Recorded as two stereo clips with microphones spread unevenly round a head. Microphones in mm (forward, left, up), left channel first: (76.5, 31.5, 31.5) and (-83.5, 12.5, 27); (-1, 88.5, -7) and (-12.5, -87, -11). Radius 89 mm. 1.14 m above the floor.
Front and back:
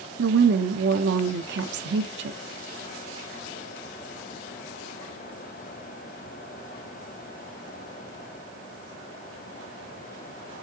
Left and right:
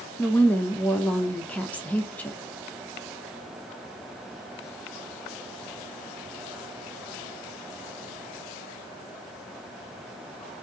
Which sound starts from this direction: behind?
A woman speaking, at 0.2 s.